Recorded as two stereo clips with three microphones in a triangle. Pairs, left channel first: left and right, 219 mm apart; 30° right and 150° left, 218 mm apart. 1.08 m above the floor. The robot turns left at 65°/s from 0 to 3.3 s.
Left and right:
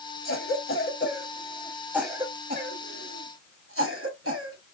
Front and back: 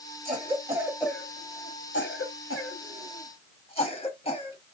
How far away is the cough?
About 2.5 m.